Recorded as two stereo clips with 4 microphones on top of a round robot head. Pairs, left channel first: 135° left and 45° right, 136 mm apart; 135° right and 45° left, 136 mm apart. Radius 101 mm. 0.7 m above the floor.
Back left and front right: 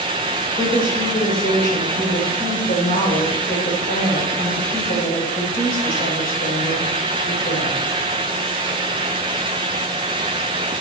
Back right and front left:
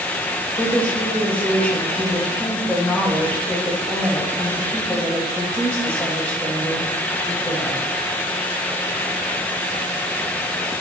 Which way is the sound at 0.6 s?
145° left.